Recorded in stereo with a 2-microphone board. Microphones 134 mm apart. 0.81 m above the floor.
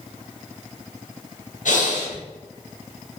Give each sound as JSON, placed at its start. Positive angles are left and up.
{"t": 1.6, "sound": "breathing", "side_deg": 70, "distance_m": 0.6}